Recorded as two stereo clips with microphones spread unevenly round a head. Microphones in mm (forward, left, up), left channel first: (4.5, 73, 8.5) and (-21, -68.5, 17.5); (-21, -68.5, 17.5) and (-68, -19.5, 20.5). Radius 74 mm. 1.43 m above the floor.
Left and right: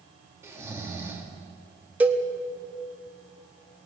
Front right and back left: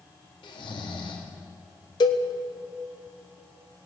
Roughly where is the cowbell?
Ahead.